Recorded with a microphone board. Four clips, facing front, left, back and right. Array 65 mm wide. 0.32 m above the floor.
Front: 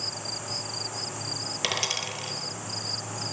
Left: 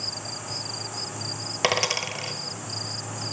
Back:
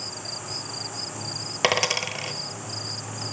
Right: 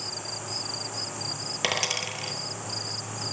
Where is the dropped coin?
155° left, 0.7 m.